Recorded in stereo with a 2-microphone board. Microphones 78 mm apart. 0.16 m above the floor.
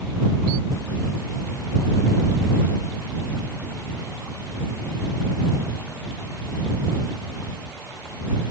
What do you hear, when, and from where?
Only background noise.